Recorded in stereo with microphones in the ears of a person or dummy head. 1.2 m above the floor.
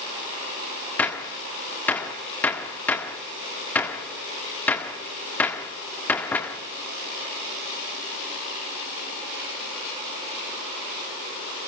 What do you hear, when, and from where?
1.0 s a gunshot: 10° left (ahead or behind), 1.6 m